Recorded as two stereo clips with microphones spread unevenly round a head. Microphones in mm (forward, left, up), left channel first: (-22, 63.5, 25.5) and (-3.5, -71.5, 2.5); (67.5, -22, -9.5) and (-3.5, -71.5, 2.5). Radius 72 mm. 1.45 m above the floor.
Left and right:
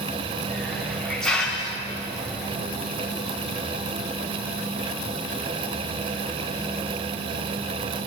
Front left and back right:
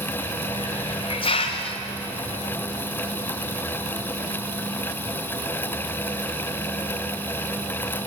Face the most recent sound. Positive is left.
turn(degrees=15)